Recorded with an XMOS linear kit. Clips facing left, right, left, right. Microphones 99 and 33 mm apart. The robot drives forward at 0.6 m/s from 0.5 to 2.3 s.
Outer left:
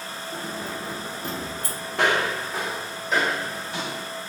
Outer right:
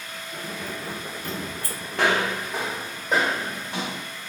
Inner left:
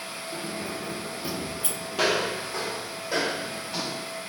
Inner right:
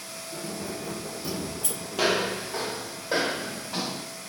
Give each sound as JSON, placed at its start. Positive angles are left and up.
{"t": 0.3, "sound": "keys jangling", "side_deg": 35, "distance_m": 1.4}
{"t": 1.9, "sound": "footsteps", "side_deg": 5, "distance_m": 1.6}